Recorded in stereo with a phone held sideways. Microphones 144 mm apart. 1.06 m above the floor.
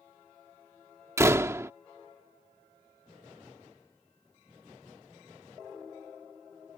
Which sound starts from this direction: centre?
A door slam, at 1.2 s.